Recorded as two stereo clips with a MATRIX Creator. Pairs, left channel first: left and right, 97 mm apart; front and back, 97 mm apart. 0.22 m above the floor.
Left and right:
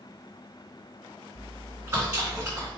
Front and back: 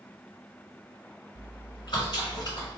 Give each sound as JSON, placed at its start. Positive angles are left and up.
{"t": 1.4, "sound": "chewing", "azimuth_deg": -35, "distance_m": 1.9}